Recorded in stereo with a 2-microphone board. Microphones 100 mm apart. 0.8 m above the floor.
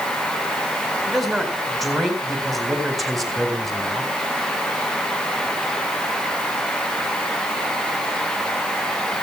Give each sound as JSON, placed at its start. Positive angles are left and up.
{"t": 1.1, "sound": "a man speaking", "side_deg": 0, "distance_m": 4.0}